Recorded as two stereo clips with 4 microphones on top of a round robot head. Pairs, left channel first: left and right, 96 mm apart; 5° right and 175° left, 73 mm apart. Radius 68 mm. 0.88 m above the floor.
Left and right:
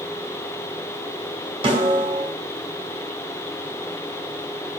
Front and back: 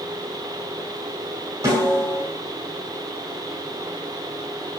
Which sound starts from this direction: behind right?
A snare drum, at 1.6 s.